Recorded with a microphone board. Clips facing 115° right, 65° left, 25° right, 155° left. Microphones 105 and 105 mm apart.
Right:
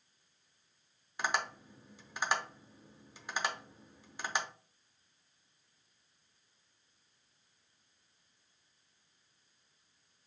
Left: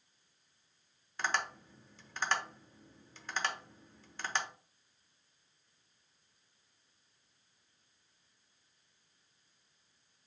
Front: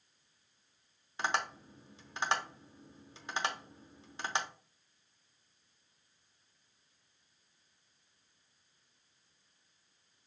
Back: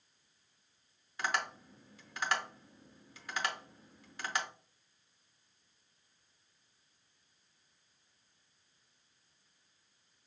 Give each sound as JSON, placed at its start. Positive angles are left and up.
{"t": 1.2, "sound": "tapping", "azimuth_deg": -50, "distance_m": 0.6}